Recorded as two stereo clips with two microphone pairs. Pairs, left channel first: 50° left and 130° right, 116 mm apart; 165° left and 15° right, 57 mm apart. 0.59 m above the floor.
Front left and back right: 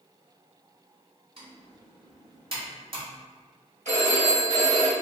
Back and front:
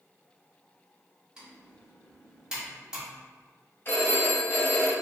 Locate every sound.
1.4 s typing on a keyboard: 90° right, 1.2 m
3.9 s a phone ringing: 145° right, 2.0 m